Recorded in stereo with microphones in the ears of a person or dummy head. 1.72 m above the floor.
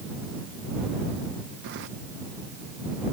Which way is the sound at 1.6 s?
55° right (ahead or behind).